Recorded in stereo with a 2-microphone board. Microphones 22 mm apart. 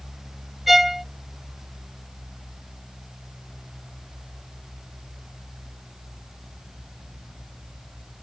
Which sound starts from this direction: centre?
A violin, at 0.7 s.